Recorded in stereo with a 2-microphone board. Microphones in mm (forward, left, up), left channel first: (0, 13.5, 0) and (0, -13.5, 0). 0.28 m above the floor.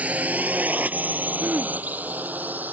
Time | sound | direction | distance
0.0 | a drone | 60° right (ahead or behind) | ?
1.4 | throat clearing | 60° right (ahead or behind) | ?